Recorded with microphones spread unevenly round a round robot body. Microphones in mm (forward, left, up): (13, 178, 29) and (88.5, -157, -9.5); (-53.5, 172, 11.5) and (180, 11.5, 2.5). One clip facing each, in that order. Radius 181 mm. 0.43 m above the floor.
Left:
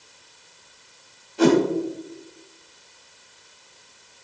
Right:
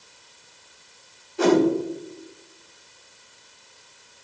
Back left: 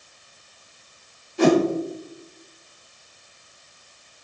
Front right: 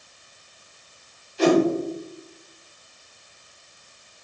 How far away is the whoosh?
About 2.0 m.